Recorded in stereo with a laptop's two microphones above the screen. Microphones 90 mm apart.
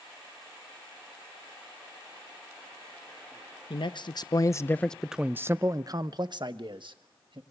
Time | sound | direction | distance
3.7 | a man speaking | 60° left (ahead or behind) | 1.1 m